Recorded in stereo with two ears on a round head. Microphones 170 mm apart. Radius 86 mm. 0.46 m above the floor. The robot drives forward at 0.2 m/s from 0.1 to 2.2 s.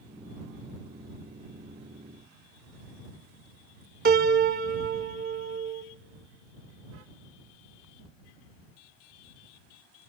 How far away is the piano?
About 0.6 m.